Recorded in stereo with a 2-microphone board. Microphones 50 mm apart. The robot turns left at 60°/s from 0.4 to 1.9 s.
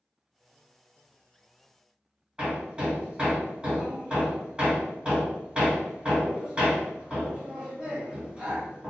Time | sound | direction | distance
2.4 | hammering | 20° right (ahead or behind) | 2.0 m